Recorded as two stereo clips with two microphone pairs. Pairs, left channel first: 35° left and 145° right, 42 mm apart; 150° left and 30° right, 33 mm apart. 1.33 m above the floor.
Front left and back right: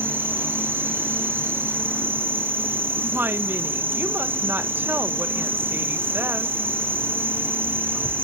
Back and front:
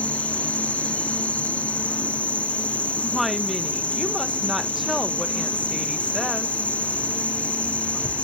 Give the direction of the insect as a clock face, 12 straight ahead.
5 o'clock.